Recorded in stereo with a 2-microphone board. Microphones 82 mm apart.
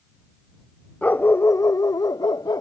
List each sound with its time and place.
1.0 s a dog barking: 20° left (ahead or behind); by 2.6 s 50° left (ahead or behind)